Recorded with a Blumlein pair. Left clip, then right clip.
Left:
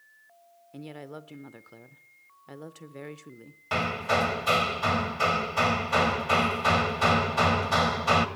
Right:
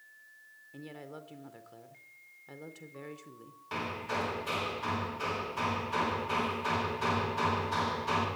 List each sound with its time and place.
0.7 s a woman speaking: 20° left, 0.6 m
3.7 s hammering: 60° left, 1.1 m